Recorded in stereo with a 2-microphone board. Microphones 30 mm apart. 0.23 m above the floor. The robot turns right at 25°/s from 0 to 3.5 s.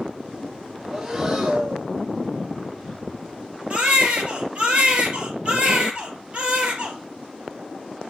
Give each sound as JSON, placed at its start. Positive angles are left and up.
{"t": 0.9, "sound": "breathing", "side_deg": -10, "distance_m": 4.5}
{"t": 3.7, "sound": "a baby crying", "side_deg": -35, "distance_m": 2.5}